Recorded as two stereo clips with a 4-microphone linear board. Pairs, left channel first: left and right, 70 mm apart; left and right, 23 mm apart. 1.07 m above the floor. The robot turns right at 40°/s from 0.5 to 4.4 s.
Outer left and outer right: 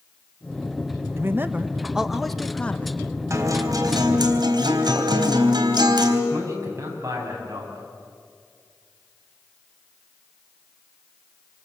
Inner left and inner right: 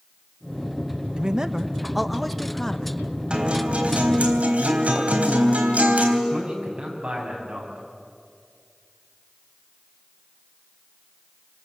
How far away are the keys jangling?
No keys jangling in this recording.